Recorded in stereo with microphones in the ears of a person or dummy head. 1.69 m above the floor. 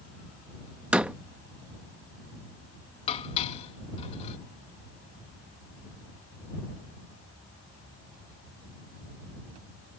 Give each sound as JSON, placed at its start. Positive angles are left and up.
{"t": 0.9, "sound": "a door slam", "side_deg": -10}
{"t": 3.1, "sound": "dishes clattering", "side_deg": 30}